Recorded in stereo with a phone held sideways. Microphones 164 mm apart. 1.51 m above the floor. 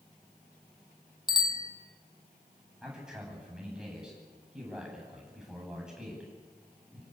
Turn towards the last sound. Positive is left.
turn(degrees=-5)  # may be behind; listen again after turning